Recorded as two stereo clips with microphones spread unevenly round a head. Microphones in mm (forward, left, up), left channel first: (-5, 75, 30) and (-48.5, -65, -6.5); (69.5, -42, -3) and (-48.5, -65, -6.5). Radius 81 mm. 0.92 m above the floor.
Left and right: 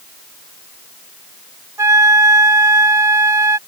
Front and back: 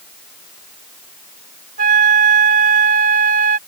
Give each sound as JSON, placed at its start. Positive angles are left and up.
{"t": 1.8, "sound": "a flute", "azimuth_deg": 180}